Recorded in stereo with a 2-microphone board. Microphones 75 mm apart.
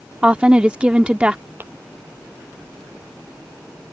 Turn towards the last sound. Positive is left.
turn(degrees=-30)  # may be behind; listen again after turning